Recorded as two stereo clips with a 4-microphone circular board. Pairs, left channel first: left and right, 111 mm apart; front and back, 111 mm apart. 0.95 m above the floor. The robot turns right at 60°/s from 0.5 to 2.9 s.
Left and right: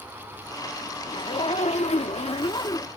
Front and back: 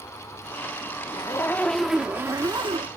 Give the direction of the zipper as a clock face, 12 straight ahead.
10 o'clock.